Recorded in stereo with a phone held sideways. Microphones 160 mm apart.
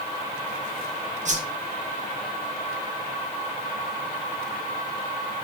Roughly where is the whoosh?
Right.